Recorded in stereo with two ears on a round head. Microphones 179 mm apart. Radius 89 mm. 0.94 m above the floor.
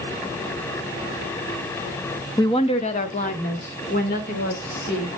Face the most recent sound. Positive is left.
turn(degrees=50)  # may be behind; listen again after turning